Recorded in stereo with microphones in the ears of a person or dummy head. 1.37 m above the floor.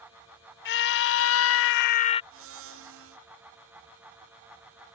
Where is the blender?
65° right (ahead or behind).